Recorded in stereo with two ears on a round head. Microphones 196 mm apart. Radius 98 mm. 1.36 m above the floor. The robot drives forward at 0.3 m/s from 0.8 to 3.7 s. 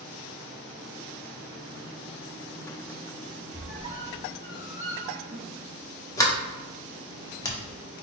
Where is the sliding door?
15° left (ahead or behind), 0.6 m.